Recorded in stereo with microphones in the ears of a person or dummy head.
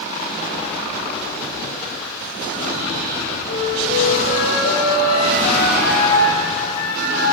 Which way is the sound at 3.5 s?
65° left (ahead or behind).